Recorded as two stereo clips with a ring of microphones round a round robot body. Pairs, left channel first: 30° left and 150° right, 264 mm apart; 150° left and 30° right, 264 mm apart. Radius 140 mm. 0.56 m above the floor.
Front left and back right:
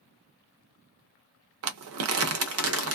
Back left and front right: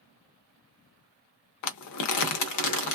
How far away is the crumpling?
About 0.7 m.